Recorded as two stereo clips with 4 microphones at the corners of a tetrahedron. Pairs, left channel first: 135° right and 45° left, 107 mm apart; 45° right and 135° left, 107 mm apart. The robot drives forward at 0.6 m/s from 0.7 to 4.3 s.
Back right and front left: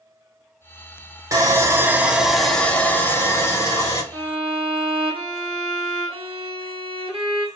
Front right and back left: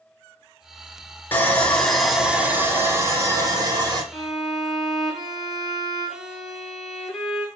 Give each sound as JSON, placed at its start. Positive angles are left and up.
{"t": 1.3, "sound": "sawing", "azimuth_deg": 10, "distance_m": 0.9}
{"t": 4.1, "sound": "a violin", "azimuth_deg": 45, "distance_m": 1.3}